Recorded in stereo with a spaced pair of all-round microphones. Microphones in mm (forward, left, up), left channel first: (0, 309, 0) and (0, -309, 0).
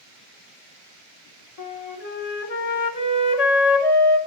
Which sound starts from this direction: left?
A flute, at 1.6 s.